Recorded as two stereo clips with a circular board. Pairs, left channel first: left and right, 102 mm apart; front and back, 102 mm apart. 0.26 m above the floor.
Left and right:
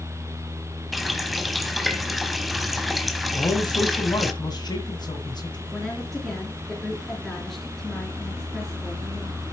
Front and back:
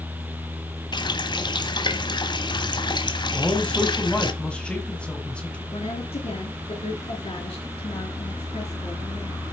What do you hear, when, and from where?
0.9 s a running tap: straight ahead, 0.9 m
3.3 s a man speaking: 75° left, 1.4 m
5.7 s a woman speaking: 5° left, 3.5 m